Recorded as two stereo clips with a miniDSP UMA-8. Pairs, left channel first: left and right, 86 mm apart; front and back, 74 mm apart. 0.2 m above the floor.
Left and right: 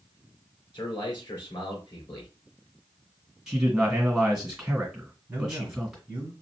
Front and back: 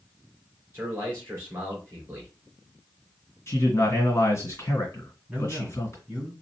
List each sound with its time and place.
0.7 s a man speaking: 125° left, 2.5 m
3.5 s a man speaking: 15° right, 1.8 m
5.3 s a man speaking: 130° right, 1.6 m